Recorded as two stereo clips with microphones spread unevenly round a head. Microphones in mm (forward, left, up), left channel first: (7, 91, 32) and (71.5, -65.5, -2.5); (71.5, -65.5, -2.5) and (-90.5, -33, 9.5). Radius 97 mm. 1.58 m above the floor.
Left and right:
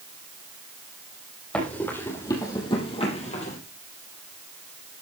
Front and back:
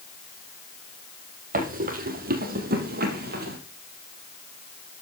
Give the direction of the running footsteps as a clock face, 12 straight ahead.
6 o'clock.